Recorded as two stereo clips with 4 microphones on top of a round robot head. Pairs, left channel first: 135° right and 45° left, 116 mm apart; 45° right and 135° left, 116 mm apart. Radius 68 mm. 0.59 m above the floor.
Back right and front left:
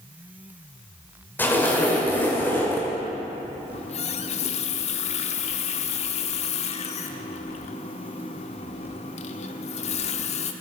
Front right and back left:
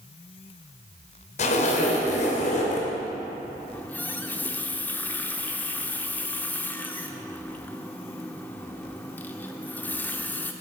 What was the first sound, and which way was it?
A zipper, 60° right.